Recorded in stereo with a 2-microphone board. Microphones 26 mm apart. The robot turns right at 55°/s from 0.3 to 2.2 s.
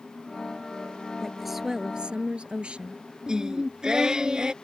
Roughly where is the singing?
Right.